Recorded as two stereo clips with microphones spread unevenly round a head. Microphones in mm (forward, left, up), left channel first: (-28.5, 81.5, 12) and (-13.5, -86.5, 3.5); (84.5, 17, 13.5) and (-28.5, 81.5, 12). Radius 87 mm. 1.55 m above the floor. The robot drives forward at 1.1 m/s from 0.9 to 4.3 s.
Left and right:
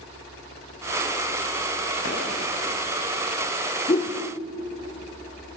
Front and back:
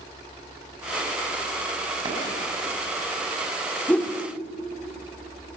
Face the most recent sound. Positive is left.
turn(degrees=60)